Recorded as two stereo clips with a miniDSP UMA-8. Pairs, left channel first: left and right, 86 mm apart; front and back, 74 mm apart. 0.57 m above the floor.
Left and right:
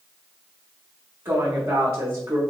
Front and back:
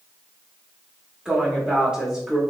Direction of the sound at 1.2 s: 110° right.